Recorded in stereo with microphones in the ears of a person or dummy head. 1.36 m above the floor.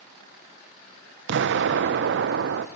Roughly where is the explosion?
Right.